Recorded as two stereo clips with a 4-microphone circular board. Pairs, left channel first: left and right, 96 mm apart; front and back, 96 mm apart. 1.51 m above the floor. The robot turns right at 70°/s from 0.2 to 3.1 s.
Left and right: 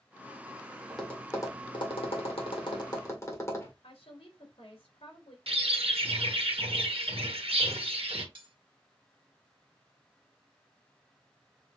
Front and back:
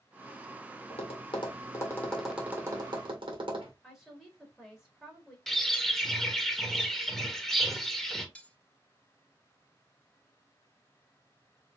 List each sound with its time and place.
0.9 s tapping: 5° right, 2.0 m; by 3.7 s 150° left, 2.0 m
3.8 s a woman speaking: 90° left, 2.5 m
5.5 s a bird: 90° right, 1.1 m
8.3 s cutlery clinking: 75° right, 1.2 m